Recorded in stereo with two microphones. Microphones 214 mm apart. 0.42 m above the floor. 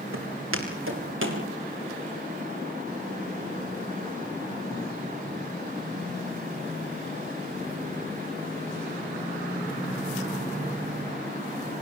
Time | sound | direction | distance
0.1 | footsteps | 75° right (ahead or behind) | 7.5 m